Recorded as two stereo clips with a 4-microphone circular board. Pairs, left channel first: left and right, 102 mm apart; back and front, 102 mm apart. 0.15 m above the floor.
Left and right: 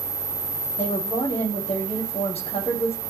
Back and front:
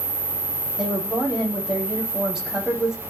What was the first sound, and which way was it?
A woman speaking, 85° left.